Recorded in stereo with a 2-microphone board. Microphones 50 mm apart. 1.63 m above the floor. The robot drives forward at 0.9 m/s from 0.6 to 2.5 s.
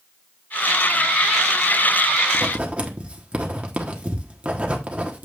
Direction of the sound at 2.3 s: 30° right (ahead or behind).